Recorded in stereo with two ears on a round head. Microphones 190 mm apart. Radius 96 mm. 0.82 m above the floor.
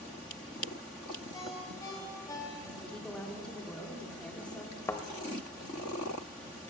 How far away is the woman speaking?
About 1.6 m.